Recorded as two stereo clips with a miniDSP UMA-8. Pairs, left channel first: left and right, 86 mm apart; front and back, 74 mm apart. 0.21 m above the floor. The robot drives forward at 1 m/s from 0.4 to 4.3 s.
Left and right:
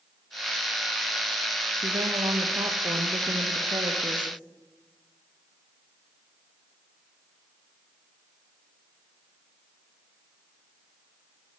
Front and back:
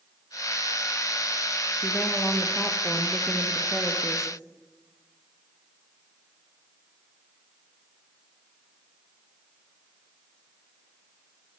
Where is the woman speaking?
70° right, 5 m; by 4.3 s 100° right, 5 m.